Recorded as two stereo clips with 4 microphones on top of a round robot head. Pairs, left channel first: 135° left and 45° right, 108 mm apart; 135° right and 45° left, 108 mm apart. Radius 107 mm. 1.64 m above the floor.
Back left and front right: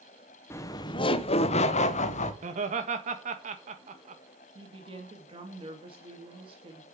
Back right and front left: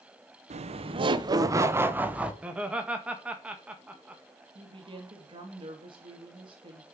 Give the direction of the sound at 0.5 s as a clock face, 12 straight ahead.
10 o'clock.